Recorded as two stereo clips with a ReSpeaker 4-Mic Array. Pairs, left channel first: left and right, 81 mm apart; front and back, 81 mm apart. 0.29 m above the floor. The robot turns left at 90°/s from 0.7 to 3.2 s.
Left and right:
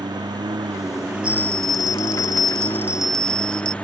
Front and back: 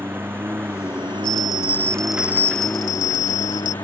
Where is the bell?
15° right; by 3.7 s 170° left.